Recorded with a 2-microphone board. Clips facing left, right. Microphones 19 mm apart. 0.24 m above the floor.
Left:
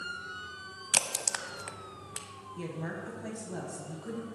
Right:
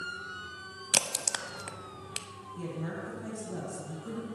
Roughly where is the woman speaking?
Left.